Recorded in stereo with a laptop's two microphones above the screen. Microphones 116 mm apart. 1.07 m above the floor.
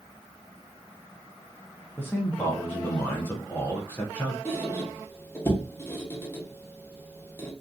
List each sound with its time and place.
2.0 s a man speaking: 15° left (ahead or behind), 0.6 m
4.5 s a squeak: 20° left (ahead or behind), 0.7 m